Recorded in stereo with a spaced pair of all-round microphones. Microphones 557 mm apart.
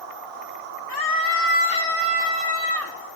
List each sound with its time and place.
0.9 s a scream: 45° left (ahead or behind), 0.8 m; by 3.0 s 25° right (ahead or behind), 1.2 m